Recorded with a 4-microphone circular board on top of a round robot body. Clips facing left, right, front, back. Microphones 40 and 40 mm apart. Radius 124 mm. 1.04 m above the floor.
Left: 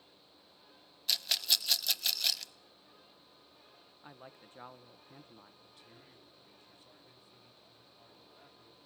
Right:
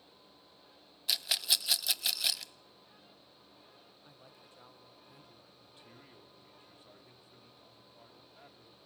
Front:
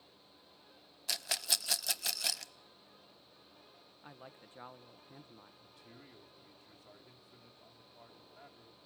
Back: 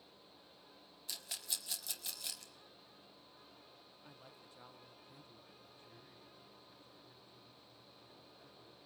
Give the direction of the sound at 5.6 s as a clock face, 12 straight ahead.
1 o'clock.